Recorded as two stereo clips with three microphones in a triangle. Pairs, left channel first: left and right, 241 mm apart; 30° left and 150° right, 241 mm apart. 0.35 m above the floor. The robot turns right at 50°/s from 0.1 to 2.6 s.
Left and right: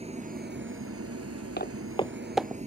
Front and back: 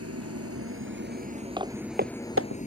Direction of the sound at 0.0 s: 155° right.